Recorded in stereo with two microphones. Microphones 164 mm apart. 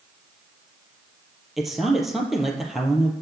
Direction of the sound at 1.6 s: Centre (ahead or behind).